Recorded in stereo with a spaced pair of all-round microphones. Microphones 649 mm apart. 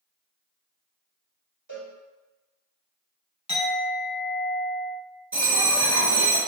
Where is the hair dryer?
I don't hear a hair dryer.